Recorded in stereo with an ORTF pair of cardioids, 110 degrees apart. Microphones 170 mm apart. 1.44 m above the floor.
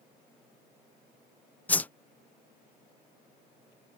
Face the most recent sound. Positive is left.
turn(degrees=10)